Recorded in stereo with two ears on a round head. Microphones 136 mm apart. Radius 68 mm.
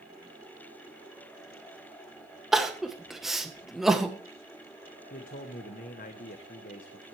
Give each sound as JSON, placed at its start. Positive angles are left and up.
{"t": 2.5, "sound": "crying", "side_deg": 0, "distance_m": 1.0}
{"t": 5.1, "sound": "a man speaking", "side_deg": 60, "distance_m": 1.0}